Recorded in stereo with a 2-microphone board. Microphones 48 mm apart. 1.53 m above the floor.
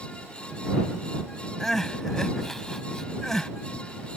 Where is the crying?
10° left (ahead or behind).